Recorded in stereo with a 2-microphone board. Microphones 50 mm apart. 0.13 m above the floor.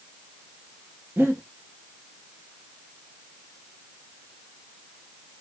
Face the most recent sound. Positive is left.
turn(degrees=-40)  # may be behind; listen again after turning